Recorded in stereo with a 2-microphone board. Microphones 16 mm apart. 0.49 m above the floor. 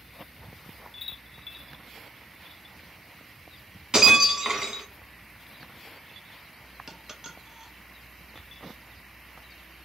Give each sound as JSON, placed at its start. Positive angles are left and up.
{"t": 3.9, "sound": "breaking glass", "side_deg": -45, "distance_m": 1.0}
{"t": 6.9, "sound": "a dropped coin", "side_deg": -30, "distance_m": 0.7}